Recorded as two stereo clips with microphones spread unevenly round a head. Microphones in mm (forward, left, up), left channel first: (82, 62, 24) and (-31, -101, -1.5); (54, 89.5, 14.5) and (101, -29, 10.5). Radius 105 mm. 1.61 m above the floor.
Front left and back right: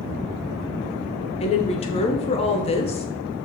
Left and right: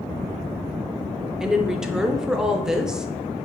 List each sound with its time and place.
1.4 s a woman speaking: 15° left, 0.6 m